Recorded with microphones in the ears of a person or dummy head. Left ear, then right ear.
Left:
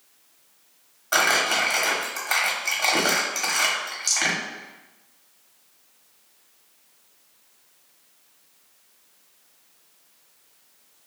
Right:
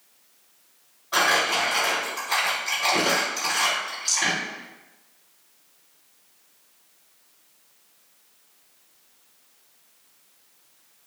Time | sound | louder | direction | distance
1.1 | crumpling | left 1 dB | 50° left (ahead or behind) | 0.9 m
4.1 | a rattle | left 1 dB | 40° left (ahead or behind) | 0.7 m